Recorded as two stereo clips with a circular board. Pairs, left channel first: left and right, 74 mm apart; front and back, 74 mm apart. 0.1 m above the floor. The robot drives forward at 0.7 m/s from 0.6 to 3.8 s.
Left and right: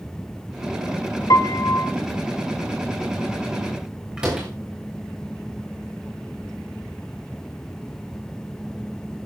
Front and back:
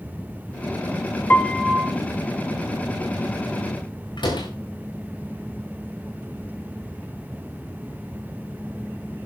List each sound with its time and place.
1.3 s a piano: 65° left, 0.7 m; by 1.9 s 110° left, 0.7 m
4.2 s a door slam: 10° right, 5.5 m